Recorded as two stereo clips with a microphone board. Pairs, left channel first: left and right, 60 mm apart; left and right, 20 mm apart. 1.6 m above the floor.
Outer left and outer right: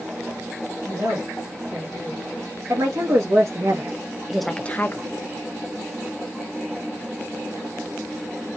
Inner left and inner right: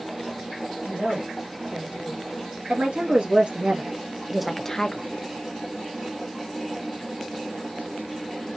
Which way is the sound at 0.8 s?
85° right.